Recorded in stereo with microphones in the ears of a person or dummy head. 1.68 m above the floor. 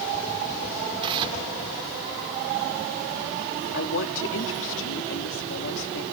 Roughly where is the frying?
No frying in this recording.